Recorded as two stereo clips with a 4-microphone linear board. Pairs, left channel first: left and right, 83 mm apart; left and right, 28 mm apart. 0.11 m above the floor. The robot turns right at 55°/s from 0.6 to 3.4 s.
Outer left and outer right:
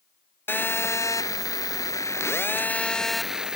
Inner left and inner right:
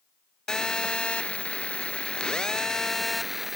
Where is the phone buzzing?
35° left, 0.6 m; by 3.6 s 170° right, 0.6 m.